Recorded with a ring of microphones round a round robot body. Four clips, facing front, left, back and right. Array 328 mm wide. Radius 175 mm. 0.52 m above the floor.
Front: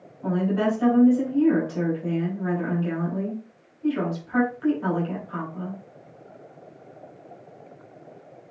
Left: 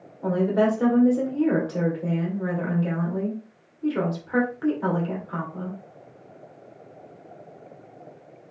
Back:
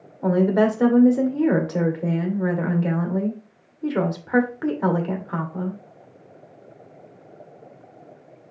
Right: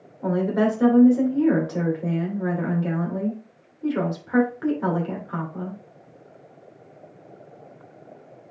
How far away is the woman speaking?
About 2.5 m.